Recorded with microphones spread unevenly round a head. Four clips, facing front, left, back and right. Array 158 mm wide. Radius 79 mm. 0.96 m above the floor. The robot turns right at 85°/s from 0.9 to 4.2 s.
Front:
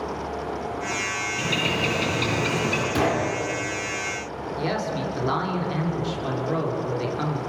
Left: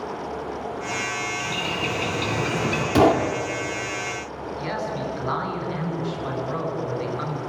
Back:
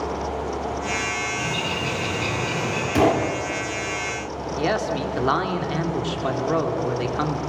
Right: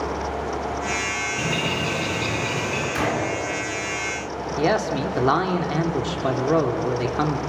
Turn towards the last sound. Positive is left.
turn(degrees=-100)